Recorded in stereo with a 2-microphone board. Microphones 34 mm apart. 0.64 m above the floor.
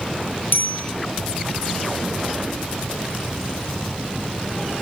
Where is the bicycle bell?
85° left, 7.5 m.